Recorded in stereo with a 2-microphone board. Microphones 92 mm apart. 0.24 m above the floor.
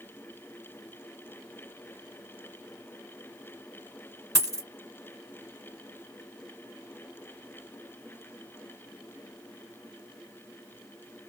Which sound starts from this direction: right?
A dropped coin, at 4.3 s.